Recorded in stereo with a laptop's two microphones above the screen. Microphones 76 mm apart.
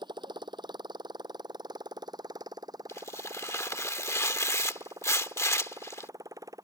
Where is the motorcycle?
80° right; by 6.7 s 45° right (ahead or behind).